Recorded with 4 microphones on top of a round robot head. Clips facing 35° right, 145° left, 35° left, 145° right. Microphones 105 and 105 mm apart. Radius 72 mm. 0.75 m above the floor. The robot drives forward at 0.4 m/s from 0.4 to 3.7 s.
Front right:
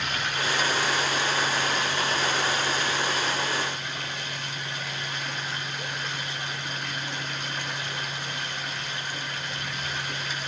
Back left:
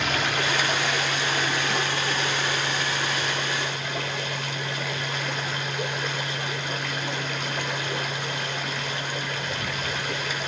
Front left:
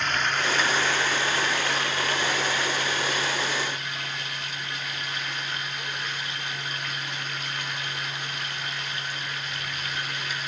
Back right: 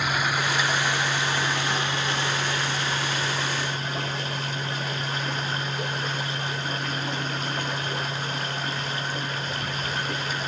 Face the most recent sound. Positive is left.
turn(degrees=160)